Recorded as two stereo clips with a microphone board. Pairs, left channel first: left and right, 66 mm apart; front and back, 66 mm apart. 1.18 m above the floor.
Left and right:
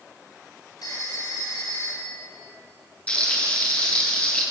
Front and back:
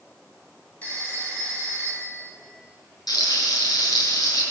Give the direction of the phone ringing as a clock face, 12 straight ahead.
10 o'clock.